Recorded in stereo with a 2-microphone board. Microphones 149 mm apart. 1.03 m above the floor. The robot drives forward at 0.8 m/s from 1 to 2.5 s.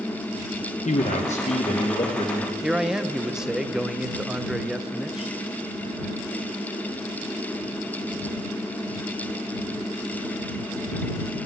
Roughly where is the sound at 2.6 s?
Centre.